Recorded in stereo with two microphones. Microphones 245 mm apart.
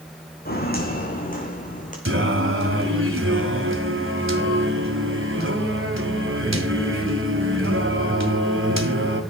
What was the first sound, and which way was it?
Footsteps, 40° left (ahead or behind).